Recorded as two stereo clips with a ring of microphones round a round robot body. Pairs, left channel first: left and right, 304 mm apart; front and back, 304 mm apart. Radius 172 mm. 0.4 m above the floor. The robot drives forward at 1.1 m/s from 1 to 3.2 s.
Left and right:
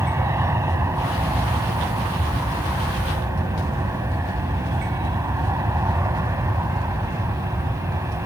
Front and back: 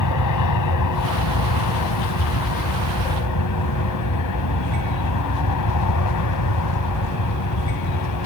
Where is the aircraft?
10° right.